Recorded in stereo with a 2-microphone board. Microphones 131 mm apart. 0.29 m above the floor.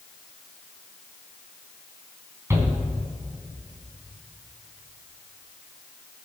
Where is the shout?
20° right (ahead or behind), 3 m.